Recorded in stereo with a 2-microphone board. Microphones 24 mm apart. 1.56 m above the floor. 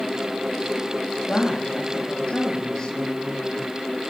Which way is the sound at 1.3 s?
60° left (ahead or behind).